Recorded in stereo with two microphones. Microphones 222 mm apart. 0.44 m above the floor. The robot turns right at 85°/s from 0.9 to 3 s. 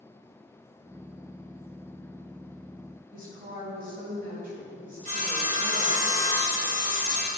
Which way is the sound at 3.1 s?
40° right (ahead or behind).